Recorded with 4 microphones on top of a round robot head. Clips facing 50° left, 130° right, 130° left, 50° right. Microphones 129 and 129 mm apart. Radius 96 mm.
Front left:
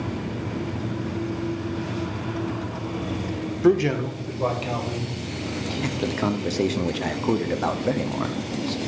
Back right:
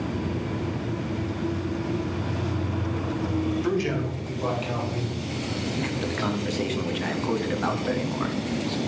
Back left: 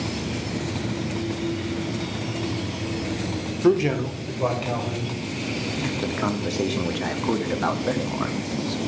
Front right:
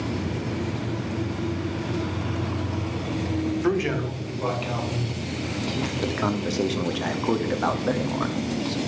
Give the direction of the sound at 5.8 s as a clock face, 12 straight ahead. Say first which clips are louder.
Front left 6 dB, back left 1 dB; 11 o'clock.